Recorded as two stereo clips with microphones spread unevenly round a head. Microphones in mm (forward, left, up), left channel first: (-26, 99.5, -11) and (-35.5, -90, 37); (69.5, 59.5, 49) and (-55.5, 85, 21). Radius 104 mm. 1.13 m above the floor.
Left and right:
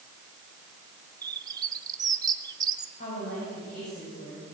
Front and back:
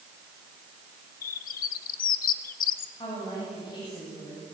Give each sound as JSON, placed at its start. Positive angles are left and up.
{"t": 1.2, "sound": "a bird", "azimuth_deg": -20, "distance_m": 0.7}
{"t": 3.0, "sound": "a woman speaking", "azimuth_deg": 35, "distance_m": 8.0}